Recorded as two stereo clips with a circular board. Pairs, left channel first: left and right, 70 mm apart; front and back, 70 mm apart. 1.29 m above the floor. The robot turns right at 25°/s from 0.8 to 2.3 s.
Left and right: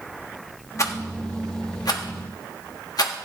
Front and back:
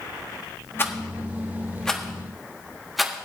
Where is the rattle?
55° left, 1.2 m; by 3.3 s 90° left, 1.2 m.